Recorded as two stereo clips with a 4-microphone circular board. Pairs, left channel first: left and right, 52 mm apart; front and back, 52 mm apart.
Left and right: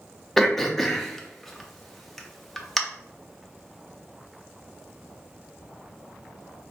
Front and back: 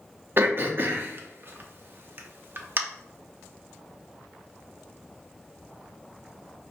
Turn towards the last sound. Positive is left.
turn(degrees=175)